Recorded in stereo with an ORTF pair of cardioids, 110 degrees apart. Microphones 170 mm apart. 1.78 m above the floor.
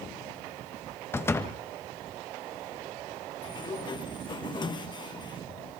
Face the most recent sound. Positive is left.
turn(degrees=25)